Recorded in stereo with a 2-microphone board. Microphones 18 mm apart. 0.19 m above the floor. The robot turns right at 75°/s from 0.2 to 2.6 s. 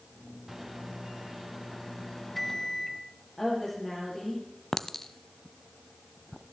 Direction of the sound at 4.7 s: 15° left (ahead or behind).